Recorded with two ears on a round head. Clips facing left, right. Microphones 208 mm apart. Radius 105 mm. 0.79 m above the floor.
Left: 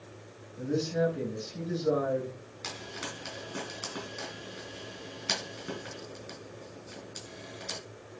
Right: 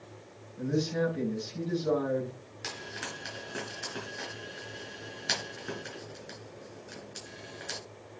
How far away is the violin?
I don't hear a violin.